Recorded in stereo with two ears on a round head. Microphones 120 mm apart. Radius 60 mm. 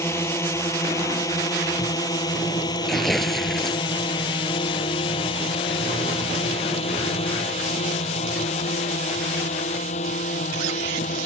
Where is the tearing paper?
Centre (ahead or behind).